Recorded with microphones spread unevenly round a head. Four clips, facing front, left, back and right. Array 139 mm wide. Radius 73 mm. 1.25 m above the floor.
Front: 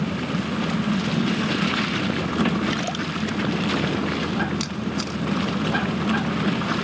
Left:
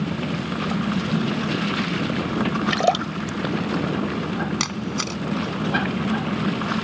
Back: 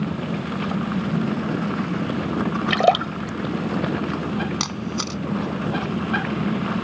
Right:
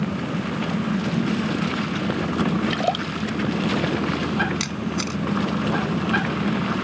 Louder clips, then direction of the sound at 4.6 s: Right 1 dB, even; 145° left.